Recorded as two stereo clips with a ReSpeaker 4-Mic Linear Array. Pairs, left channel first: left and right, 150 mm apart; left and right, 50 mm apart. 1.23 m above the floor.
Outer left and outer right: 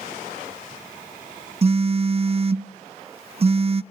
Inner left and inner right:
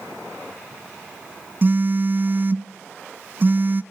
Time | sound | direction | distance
1.6 | a phone buzzing | 40° right (ahead or behind) | 0.6 m